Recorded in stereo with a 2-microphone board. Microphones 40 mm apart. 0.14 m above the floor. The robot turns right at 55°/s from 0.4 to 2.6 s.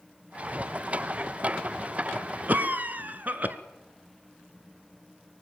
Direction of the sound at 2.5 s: 45° right (ahead or behind).